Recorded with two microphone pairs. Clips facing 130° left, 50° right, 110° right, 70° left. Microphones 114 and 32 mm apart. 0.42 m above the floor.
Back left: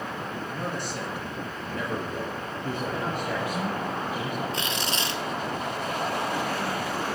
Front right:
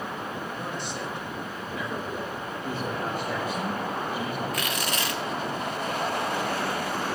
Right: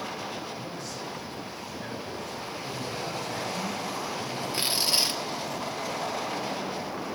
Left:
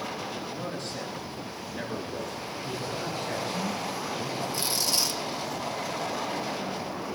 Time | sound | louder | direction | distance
0.5 | a man speaking | back left 1 dB, left 2 dB | 90° left | 6.5 m
2.6 | a man speaking | back left 1 dB, left 2 dB | 120° left | 7.5 m
4.5 | tearing paper | even, right 4 dB | 170° right | 1.8 m